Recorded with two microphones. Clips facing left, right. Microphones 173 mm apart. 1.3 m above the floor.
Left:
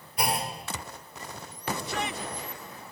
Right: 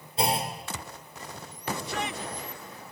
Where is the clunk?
25° right (ahead or behind), 2.5 m.